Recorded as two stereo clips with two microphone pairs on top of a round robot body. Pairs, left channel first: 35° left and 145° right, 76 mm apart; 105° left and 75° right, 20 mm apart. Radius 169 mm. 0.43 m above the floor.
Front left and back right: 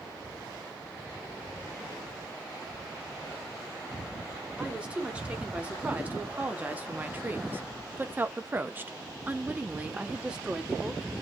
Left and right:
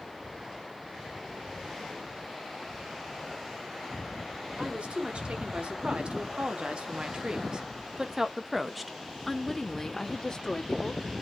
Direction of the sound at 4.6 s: 70° right.